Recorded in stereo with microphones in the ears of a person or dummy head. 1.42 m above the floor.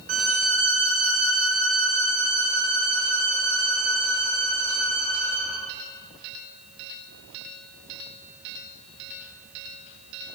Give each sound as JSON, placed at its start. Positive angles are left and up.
{"t": 0.1, "sound": "a violin", "side_deg": -40, "distance_m": 1.1}